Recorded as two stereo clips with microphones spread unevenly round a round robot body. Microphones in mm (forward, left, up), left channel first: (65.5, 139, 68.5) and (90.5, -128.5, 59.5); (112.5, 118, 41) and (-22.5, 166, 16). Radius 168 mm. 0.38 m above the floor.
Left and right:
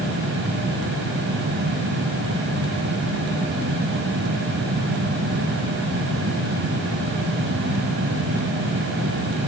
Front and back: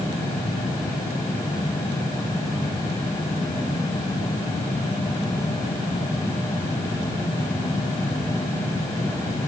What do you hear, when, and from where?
Only background noise.